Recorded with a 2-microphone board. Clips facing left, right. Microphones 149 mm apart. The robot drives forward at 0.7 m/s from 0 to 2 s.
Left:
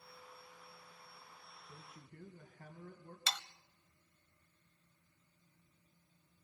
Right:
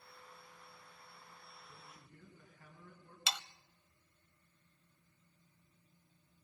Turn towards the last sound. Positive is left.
turn(degrees=-10)  # may be behind; listen again after turning